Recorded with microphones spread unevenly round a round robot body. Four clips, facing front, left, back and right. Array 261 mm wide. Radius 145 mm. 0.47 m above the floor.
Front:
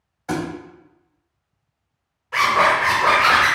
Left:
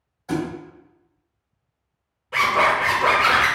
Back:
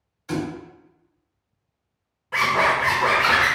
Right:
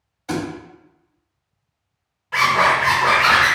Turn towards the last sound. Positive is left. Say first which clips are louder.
# right 2 dB, front 3 dB
turn(degrees=155)